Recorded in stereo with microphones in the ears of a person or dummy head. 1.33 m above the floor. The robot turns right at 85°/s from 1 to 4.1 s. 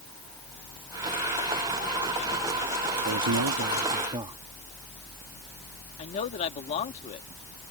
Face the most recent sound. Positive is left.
turn(degrees=35)  # may be behind; listen again after turning